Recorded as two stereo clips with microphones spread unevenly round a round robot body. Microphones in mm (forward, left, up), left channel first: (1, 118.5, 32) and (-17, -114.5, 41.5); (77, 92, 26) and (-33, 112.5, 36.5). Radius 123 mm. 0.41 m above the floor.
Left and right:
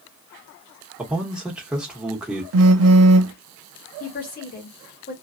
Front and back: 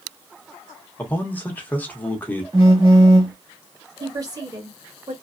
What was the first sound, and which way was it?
A man speaking, 10° right.